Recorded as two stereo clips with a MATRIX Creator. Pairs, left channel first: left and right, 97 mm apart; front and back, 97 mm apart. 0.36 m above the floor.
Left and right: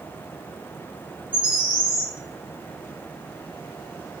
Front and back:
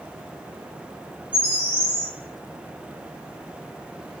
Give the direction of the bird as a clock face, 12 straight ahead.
4 o'clock.